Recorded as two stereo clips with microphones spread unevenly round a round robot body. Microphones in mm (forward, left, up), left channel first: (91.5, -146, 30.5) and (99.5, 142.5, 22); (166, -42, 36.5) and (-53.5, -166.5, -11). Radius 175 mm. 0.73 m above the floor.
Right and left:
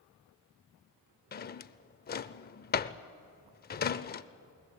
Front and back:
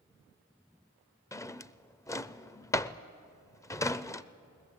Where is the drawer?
40° right, 0.6 m.